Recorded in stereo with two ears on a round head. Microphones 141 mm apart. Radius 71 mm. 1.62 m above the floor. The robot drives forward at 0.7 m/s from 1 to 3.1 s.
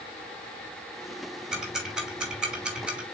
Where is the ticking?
5° right (ahead or behind), 3 m.